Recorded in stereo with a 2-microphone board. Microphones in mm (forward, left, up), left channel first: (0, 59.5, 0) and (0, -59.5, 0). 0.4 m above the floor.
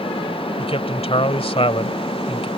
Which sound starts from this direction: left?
A man speaking, at 0.6 s.